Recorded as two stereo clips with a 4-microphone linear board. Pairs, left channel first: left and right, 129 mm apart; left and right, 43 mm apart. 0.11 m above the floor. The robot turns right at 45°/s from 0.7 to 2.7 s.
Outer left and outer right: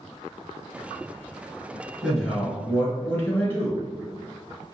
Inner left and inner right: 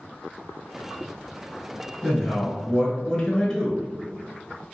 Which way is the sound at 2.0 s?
Centre (ahead or behind).